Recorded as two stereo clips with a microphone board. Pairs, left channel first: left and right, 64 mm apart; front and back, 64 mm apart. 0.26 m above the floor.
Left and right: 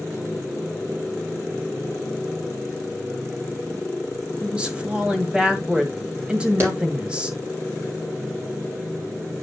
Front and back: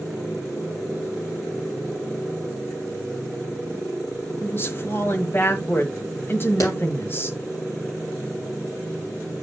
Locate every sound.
4.4 s a woman speaking: 25° right, 1.6 m
6.6 s a clap: 35° right, 5.5 m